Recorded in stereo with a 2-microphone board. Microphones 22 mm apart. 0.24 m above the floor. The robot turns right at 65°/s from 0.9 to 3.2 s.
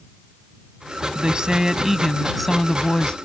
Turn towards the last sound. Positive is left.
turn(degrees=60)